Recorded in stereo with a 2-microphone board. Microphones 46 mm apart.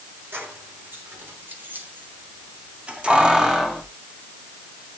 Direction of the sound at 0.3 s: 55° right (ahead or behind).